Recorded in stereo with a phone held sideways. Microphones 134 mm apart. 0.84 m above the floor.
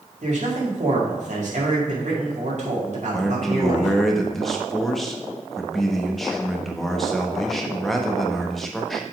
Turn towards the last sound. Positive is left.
turn(degrees=0)  # may be behind; listen again after turning